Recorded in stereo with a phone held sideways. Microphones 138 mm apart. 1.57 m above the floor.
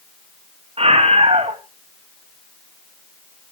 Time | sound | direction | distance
0.8 | a scream | 45° right (ahead or behind) | 3 m